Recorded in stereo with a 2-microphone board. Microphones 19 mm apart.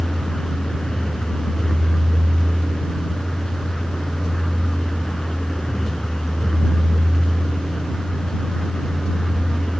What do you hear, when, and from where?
0.0 s a vehicle: 35° left (ahead or behind)